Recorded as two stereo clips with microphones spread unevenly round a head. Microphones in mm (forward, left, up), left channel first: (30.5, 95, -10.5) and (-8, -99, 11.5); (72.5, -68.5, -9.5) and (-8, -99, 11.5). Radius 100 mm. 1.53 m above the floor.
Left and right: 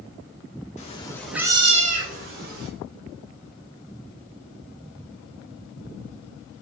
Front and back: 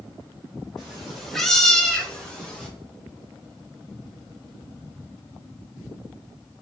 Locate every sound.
0.8 s a cat meowing: 130° left, 0.9 m; by 2.7 s 70° right, 1.8 m